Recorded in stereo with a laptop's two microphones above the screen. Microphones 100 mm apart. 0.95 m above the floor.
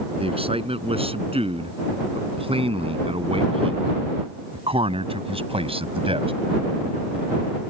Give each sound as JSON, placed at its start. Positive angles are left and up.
{"t": 0.2, "sound": "a man speaking", "side_deg": -75}